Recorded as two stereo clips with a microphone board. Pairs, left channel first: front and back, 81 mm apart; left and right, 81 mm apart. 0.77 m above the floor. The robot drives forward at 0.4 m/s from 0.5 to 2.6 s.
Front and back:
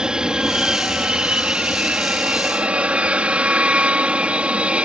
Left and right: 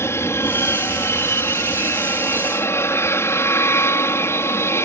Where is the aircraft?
110° left; by 4.8 s 115° left.